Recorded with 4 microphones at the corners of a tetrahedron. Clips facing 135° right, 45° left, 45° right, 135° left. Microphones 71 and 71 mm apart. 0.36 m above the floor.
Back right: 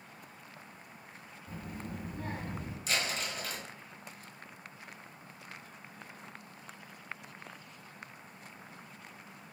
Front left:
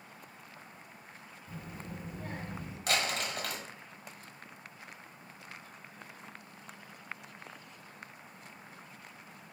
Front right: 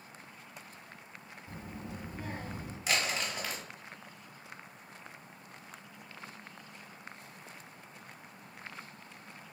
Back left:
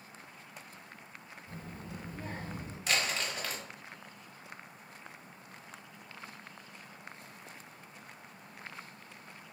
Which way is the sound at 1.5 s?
110° right.